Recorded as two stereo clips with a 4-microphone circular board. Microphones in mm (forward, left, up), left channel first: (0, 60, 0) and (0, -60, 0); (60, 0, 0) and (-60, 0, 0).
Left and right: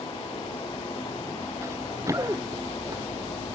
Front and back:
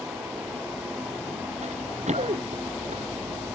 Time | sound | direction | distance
1.6 | running footsteps | 155° right | ?